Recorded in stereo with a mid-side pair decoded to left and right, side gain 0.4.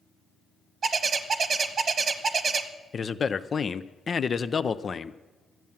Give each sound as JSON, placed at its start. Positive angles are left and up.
{"t": 0.8, "sound": "a bird", "azimuth_deg": -50, "distance_m": 1.1}
{"t": 2.9, "sound": "a man speaking", "azimuth_deg": 45, "distance_m": 0.6}